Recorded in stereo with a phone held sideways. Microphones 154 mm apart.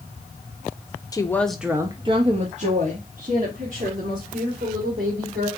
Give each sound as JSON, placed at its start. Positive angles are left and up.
{"t": 1.1, "sound": "a woman speaking", "side_deg": 25, "distance_m": 0.6}